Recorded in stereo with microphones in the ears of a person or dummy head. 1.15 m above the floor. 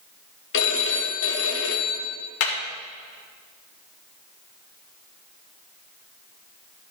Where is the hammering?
80° left, 2 m.